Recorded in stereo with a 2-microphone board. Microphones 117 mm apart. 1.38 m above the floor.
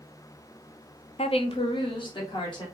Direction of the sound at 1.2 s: 50° left (ahead or behind).